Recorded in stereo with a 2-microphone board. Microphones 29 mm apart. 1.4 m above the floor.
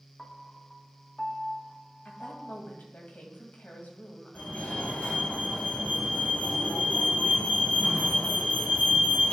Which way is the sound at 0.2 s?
15° left (ahead or behind).